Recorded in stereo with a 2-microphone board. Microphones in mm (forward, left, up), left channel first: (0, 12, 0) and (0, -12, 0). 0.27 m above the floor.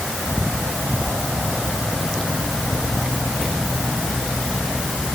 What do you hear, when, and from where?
Only background noise.